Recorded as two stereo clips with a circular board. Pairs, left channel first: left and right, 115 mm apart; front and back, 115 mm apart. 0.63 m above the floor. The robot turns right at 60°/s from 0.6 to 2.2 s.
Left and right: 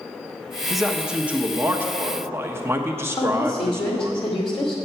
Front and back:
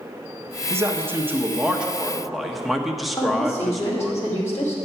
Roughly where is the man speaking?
Behind.